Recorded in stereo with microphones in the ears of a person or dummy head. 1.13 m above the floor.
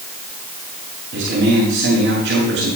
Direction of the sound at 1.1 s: 60° right (ahead or behind).